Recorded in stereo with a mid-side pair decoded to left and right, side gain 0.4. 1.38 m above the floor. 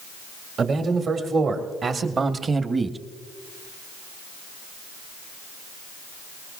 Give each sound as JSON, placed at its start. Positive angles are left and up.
{"t": 0.6, "sound": "a man speaking", "azimuth_deg": -65, "distance_m": 2.5}